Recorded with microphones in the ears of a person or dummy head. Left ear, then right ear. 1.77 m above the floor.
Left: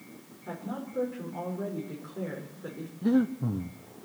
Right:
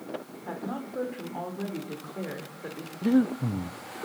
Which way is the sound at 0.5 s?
35° right (ahead or behind).